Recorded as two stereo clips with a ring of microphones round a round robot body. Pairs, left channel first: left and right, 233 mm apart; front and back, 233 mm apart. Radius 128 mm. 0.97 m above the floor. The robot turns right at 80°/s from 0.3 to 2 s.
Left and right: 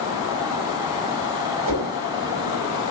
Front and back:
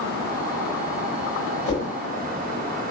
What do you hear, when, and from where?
1.6 s a whoosh: 70° right, 5.5 m; by 1.9 s 50° right, 5.5 m